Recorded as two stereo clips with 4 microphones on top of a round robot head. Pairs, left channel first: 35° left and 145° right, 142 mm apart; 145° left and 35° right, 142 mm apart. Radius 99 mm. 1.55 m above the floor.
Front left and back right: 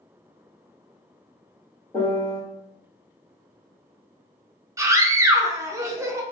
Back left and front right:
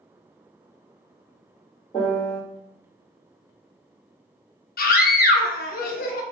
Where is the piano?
105° left, 1.0 m.